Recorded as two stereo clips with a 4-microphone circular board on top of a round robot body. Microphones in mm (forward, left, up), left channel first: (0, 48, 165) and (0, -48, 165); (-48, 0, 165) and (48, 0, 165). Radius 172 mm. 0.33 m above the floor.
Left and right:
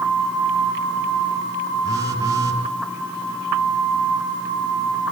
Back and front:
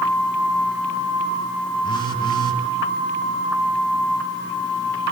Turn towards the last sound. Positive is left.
turn(degrees=-145)